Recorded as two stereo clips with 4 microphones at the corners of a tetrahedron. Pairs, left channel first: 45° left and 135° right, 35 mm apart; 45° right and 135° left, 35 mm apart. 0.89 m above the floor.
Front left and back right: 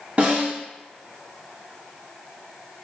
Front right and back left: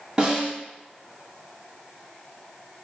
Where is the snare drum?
175° right, 1.3 m.